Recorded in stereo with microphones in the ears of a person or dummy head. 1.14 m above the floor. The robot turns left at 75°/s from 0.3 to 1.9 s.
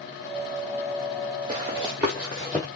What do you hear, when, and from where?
1.5 s running footsteps: 30° right (ahead or behind), 1.4 m; by 2.7 s 5° left (ahead or behind), 1.1 m